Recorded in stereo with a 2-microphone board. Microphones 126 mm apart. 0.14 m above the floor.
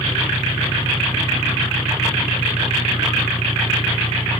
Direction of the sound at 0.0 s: 45° left (ahead or behind).